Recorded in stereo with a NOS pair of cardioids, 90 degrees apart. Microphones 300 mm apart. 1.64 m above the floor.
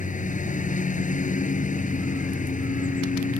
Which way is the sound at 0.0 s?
25° left.